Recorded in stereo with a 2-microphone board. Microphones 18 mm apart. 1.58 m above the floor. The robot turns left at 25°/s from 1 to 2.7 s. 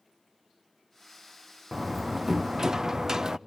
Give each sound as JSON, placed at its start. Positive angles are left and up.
{"t": 1.7, "sound": "a door slam", "side_deg": -20, "distance_m": 0.5}